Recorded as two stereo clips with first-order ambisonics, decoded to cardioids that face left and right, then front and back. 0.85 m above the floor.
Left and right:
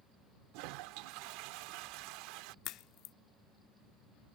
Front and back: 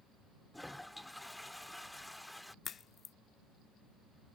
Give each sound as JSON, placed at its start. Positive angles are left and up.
{"t": 0.5, "sound": "a toilet flushing", "azimuth_deg": -85}
{"t": 2.6, "sound": "a crack", "azimuth_deg": 60}